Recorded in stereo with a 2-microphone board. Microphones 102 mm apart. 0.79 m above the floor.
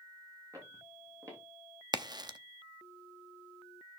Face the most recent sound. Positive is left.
turn(degrees=-40)  # may be behind; listen again after turning